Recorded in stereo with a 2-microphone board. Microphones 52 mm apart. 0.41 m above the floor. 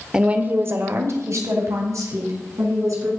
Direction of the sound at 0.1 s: 15° right (ahead or behind).